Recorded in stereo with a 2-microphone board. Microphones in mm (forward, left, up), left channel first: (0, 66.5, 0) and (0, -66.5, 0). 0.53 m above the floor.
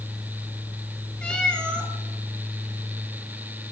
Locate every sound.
1.2 s a cat meowing: 5° left (ahead or behind), 1.5 m